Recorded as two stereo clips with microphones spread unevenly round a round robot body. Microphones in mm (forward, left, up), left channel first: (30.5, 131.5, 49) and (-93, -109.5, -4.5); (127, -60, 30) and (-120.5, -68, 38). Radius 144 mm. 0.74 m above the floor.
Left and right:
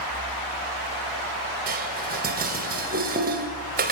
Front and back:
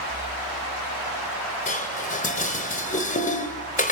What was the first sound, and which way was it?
Dishes clattering, 55° right.